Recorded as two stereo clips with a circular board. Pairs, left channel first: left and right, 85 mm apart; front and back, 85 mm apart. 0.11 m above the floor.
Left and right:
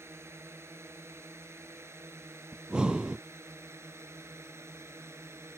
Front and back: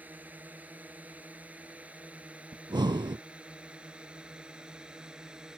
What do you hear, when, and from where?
0.0 s a drone: 125° right; by 5.6 s 105° right
2.5 s breathing: 170° right